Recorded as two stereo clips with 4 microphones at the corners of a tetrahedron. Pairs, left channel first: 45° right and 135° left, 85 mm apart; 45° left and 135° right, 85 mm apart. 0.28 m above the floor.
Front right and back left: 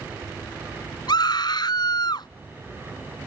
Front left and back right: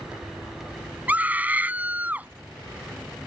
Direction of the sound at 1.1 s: 65° right.